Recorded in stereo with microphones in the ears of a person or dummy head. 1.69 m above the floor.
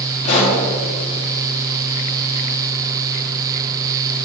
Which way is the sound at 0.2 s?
40° left (ahead or behind).